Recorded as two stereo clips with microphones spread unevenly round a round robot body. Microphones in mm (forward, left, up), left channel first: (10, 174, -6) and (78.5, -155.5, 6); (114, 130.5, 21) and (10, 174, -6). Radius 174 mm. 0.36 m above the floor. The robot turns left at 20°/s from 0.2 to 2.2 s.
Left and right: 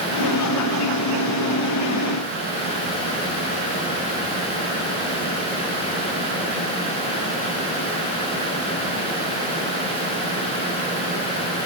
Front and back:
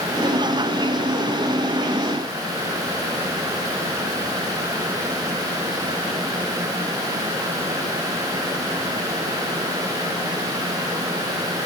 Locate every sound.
Only background noise.